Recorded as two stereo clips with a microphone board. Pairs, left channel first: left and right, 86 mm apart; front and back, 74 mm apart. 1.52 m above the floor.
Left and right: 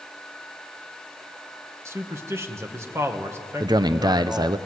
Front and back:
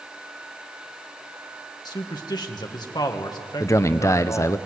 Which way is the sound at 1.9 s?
30° right.